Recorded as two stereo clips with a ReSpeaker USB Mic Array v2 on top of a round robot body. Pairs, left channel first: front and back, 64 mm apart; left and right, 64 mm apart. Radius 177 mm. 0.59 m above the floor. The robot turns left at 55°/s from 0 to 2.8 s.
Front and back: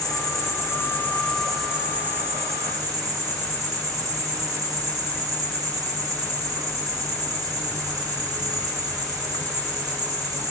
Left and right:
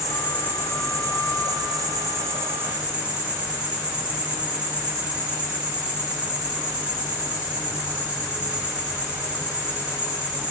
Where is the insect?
Straight ahead, 7 m; by 10.5 s 155° right, 7 m.